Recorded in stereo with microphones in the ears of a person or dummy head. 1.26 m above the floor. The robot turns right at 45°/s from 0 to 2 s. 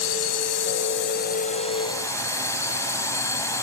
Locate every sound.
0.0 s a drone: 75° left (ahead or behind); by 3.6 s 10° left (ahead or behind)